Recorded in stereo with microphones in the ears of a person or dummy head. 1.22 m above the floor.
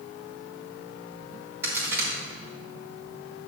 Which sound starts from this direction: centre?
A crack, at 1.6 s.